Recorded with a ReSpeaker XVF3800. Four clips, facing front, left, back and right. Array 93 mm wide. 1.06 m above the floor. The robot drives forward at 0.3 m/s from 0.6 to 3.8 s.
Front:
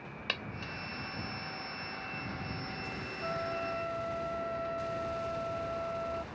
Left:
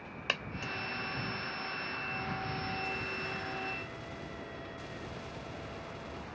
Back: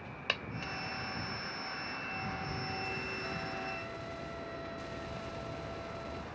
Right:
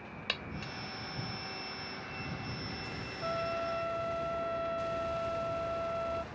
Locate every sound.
0.3 s a dropped coin: 110° left; by 0.7 s 115° left
3.2 s a trumpet: 55° right